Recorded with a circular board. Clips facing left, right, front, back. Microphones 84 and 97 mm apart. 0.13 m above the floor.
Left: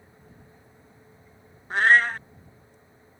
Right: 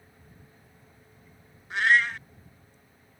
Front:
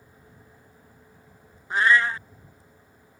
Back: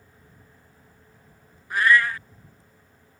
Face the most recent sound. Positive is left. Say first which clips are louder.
# left 4 dB, back 1 dB
turn(degrees=60)